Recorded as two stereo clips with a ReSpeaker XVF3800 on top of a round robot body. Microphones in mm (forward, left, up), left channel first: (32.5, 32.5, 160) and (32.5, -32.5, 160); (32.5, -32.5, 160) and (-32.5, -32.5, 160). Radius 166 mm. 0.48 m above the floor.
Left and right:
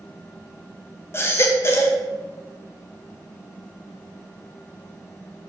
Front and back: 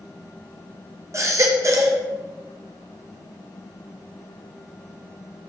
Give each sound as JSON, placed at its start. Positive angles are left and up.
{"t": 1.1, "sound": "a baby crying", "azimuth_deg": 140, "distance_m": 1.0}